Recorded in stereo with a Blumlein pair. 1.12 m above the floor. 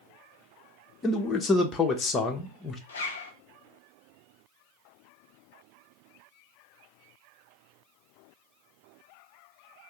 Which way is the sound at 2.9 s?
65° left.